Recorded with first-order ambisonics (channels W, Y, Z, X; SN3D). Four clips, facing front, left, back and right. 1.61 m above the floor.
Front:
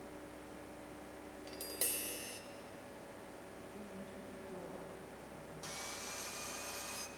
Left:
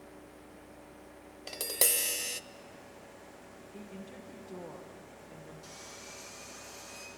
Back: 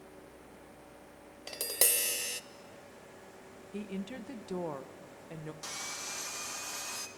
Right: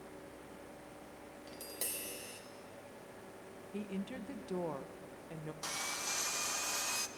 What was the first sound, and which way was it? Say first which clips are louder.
Tapping: left 13 dB, back 10 dB; 130° left.